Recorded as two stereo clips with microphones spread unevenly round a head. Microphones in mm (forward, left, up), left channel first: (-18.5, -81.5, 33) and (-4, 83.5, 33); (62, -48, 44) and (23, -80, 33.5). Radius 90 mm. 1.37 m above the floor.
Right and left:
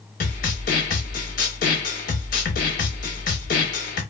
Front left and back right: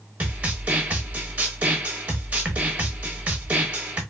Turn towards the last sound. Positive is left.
turn(degrees=-80)